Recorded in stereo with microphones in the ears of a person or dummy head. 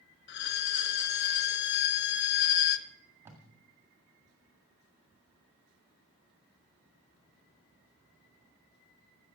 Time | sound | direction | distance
0.3 | a violin | 55° left (ahead or behind) | 0.7 m
2.9 | tape being pulled | 15° right (ahead or behind) | 1.7 m